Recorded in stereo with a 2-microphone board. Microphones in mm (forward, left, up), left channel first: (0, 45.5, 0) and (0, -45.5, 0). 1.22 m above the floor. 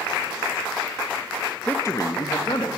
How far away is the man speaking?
About 0.9 m.